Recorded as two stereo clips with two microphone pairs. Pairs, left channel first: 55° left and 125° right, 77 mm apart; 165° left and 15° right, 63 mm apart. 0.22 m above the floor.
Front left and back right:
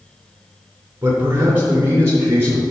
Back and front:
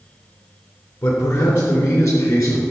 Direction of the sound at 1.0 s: 175° left.